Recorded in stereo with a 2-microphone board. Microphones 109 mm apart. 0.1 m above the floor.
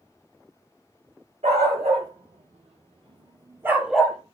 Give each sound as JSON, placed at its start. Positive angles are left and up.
{"t": 1.4, "sound": "a dog barking", "side_deg": -75, "distance_m": 2.0}